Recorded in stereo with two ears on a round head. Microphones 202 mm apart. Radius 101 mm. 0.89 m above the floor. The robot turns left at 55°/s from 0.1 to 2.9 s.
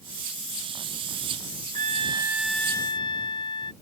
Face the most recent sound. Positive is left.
turn(degrees=155)